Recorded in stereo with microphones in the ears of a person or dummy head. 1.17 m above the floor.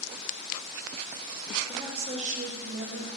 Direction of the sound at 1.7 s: 30° right (ahead or behind).